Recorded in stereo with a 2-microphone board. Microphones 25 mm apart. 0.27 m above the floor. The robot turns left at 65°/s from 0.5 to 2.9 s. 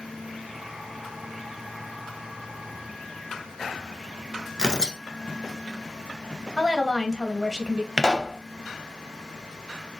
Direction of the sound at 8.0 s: 25° right (ahead or behind).